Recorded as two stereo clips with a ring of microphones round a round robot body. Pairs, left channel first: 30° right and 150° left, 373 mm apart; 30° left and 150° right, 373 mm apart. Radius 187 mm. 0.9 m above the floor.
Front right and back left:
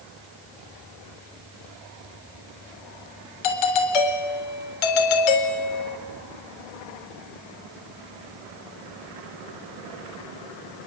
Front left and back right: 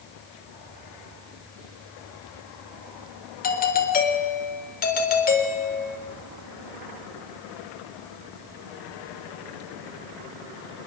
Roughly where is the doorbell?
Ahead right.